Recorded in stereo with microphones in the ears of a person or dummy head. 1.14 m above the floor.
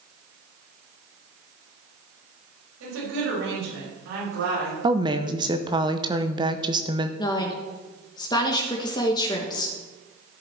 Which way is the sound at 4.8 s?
25° right (ahead or behind).